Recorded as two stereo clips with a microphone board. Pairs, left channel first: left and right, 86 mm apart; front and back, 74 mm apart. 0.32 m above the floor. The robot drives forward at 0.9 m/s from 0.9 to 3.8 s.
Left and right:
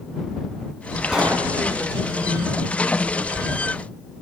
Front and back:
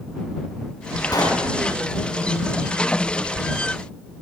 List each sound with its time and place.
1.1 s a pop: 10° right, 2.5 m